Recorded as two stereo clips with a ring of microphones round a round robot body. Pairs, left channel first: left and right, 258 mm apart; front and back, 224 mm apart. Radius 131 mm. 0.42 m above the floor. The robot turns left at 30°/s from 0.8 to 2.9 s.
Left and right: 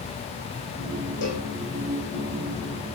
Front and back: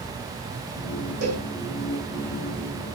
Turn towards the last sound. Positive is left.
turn(degrees=90)